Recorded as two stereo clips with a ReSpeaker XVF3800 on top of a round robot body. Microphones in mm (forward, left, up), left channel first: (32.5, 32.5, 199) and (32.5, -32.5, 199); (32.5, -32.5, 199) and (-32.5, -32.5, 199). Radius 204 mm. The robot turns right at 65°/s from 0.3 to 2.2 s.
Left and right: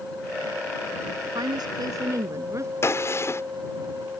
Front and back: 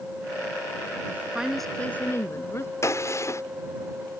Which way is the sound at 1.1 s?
120° right.